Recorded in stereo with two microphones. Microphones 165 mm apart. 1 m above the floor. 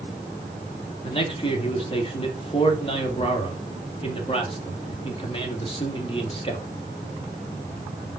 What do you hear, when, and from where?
1.0 s a man speaking: 35° left (ahead or behind), 1.8 m